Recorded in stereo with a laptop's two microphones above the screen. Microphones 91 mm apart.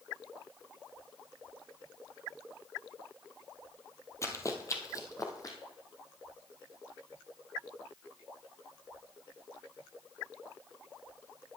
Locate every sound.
4.2 s running footsteps: 30° left (ahead or behind), 1.1 m; by 5.6 s 35° left (ahead or behind), 1.7 m